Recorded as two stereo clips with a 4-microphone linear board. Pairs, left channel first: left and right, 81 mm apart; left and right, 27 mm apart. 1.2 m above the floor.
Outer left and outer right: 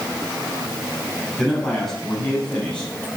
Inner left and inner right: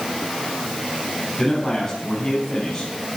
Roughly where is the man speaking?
Centre.